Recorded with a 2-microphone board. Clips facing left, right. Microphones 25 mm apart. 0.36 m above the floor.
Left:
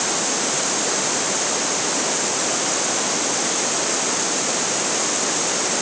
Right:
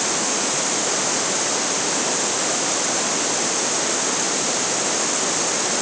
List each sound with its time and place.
Only background noise.